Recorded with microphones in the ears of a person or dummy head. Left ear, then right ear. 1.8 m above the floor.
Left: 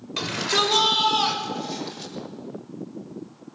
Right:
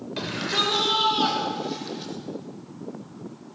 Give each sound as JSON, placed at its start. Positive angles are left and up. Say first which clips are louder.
{"t": 0.2, "sound": "a shout", "louder": "left 3 dB", "side_deg": 20, "distance_m": 6.0}